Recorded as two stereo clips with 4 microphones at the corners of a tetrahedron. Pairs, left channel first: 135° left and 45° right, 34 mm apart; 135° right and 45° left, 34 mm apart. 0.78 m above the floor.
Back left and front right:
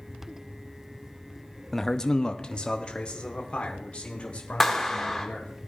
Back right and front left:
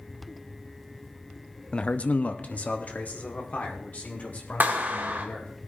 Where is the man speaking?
150° right, 0.5 m; by 5.5 s 170° right, 3.5 m.